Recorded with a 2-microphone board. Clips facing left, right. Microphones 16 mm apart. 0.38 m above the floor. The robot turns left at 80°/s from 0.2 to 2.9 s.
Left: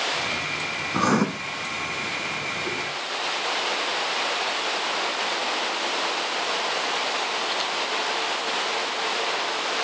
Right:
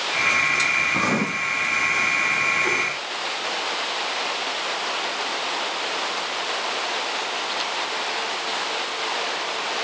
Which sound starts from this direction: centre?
Writing, at 0.9 s.